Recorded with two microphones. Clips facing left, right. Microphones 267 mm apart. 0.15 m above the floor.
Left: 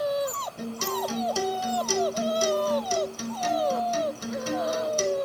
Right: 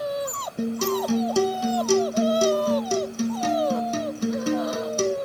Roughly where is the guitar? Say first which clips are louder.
Right 8 dB; right.